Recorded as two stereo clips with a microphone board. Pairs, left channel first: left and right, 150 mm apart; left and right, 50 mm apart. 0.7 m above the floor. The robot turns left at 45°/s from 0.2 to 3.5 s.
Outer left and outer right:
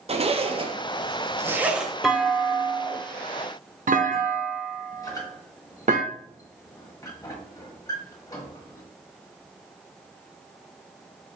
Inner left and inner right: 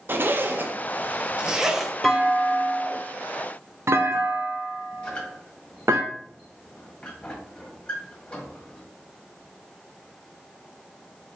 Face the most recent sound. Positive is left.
turn(degrees=25)  # may be behind; listen again after turning